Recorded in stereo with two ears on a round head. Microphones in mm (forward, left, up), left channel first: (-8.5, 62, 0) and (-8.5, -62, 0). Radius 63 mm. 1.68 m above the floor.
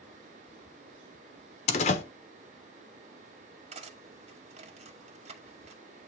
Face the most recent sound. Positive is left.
turn(degrees=-50)  # may be behind; listen again after turning